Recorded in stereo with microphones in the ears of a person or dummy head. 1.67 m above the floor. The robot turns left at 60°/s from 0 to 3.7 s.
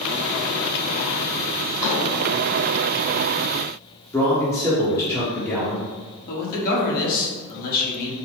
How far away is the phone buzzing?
No phone buzzing in this recording.